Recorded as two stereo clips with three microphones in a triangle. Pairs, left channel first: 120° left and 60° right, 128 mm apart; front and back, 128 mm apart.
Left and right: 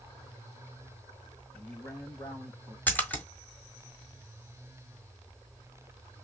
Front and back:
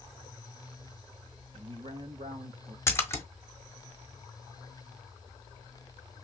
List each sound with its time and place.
1.5 s a man speaking: 170° right, 1.8 m
2.9 s a splash: 55° left, 1.2 m